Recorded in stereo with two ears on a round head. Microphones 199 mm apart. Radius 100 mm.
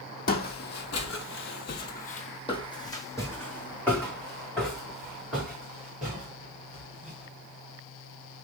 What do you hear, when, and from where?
0.3 s footsteps: 45° left (ahead or behind), 1.0 m; by 7.2 s 5° right (ahead or behind), 3.5 m